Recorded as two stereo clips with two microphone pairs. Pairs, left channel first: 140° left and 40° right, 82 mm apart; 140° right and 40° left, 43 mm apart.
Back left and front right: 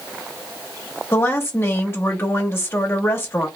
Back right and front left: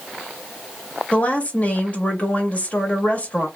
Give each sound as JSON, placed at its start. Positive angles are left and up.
{"t": 1.1, "sound": "a woman speaking", "azimuth_deg": 180, "distance_m": 0.8}